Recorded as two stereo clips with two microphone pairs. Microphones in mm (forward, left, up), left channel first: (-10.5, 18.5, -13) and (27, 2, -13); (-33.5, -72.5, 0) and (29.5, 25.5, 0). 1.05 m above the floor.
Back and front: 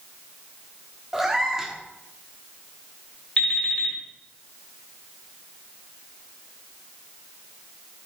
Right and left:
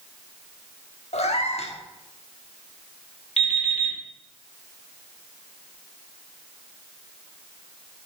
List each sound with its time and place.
1.1 s a cat meowing: 105° right, 1.0 m
3.4 s an alarm clock: 145° right, 3 m